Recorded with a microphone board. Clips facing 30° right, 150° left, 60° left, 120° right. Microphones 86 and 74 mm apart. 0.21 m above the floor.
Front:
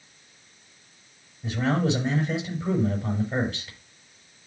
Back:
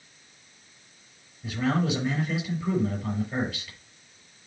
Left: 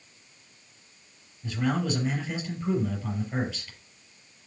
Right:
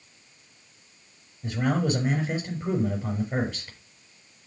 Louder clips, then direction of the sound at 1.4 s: Front 2 dB, right 2 dB; 90° right.